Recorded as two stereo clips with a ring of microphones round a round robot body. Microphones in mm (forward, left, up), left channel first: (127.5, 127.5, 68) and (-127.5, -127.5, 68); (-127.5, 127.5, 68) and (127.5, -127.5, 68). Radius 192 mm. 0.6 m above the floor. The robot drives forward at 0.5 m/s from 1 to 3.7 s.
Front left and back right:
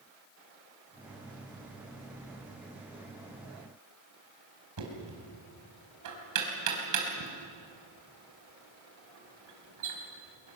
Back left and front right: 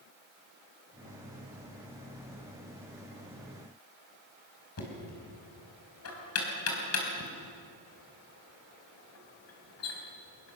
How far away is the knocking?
About 4.5 m.